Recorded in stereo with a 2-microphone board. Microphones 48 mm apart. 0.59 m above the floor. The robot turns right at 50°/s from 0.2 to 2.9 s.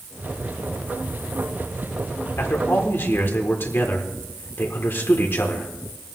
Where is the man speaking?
60° left (ahead or behind), 1.7 m; by 5.7 s 50° left (ahead or behind), 1.7 m.